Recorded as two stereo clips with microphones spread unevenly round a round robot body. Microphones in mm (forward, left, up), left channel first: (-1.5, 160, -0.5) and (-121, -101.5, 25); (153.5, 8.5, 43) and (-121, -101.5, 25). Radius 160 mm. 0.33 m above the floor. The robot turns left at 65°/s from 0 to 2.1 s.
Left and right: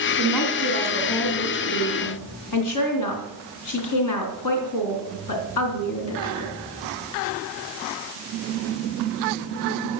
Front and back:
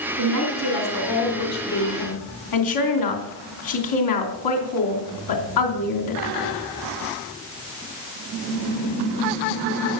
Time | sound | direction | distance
0.2 | a woman speaking | 165° left | 3.5 m